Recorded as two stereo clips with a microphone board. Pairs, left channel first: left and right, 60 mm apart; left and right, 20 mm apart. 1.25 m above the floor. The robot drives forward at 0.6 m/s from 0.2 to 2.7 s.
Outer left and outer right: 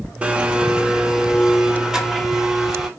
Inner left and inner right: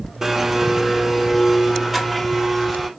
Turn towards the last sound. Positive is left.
turn(degrees=-10)  # may be behind; listen again after turning